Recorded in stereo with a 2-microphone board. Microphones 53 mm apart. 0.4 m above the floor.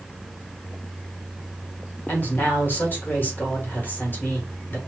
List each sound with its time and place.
2.1 s a woman speaking: 35° left (ahead or behind), 1.3 m